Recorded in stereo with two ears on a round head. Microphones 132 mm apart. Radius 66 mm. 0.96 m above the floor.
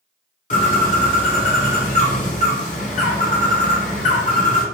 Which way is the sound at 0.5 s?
50° left (ahead or behind).